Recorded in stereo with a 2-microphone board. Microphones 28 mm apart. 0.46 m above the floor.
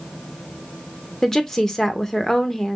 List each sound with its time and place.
1.2 s a woman speaking: 15° left (ahead or behind), 0.9 m